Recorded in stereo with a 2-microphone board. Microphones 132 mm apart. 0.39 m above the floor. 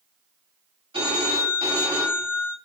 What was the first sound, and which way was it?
A phone ringing, 45° right (ahead or behind).